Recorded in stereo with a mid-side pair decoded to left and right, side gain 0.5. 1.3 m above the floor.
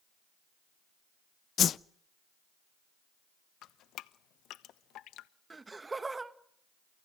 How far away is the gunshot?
No gunshot in this recording.